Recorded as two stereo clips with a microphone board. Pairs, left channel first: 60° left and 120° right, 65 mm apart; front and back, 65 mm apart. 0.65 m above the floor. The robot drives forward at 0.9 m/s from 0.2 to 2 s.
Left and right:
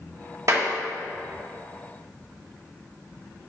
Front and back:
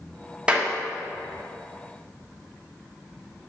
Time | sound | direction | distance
0.5 | a clap | 110° right | 1.1 m